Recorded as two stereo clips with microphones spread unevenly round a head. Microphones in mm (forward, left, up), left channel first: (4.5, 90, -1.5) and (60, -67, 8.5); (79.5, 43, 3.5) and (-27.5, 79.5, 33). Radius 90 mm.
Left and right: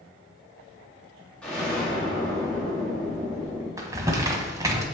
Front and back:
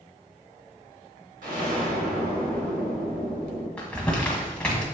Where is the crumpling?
120° right, 1.4 m.